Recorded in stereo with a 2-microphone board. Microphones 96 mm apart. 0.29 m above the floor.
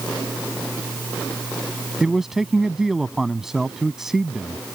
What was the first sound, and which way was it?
A man speaking, 5° right (ahead or behind).